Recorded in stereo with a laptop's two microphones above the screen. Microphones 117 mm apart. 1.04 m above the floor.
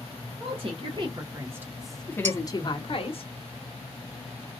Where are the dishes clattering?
80° right, 1.2 m.